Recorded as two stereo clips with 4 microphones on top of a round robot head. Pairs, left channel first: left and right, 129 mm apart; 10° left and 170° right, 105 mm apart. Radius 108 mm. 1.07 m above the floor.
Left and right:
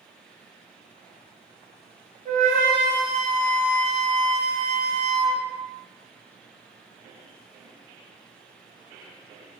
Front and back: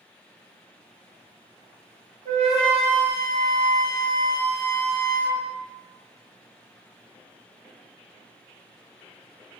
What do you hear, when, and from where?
2.2 s a flute: 145° right, 1.2 m